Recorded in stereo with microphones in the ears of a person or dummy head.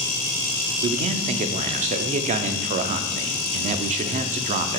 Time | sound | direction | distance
0.8 | a man speaking | 40° right (ahead or behind) | 0.6 m